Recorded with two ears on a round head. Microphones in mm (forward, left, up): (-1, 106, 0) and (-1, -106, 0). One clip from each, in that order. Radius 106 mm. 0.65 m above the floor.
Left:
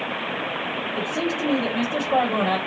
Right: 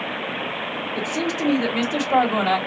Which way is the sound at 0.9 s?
65° right (ahead or behind).